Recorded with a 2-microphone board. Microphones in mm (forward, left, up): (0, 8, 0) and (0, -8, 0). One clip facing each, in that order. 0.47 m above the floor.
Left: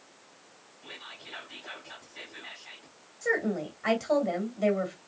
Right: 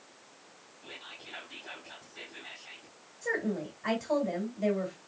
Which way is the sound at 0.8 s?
10° left (ahead or behind).